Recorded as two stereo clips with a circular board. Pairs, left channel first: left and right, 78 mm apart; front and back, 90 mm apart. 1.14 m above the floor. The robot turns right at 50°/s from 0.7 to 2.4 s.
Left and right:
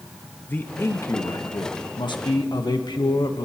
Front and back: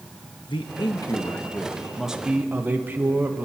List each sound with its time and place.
0.5 s a man speaking: 25° left, 1.0 m; by 3.5 s 110° left, 1.0 m